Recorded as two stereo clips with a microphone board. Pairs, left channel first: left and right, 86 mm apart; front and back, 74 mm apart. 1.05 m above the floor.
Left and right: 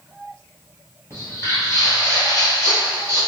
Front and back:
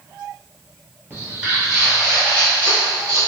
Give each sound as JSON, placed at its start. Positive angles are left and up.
{"t": 1.1, "sound": "footsteps", "azimuth_deg": 125, "distance_m": 1.3}